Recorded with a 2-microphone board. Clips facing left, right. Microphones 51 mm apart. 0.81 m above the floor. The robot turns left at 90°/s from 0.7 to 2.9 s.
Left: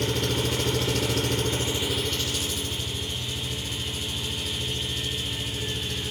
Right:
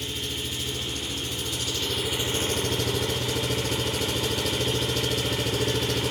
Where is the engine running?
115° left, 1.0 m; by 6.1 s 80° right, 1.0 m.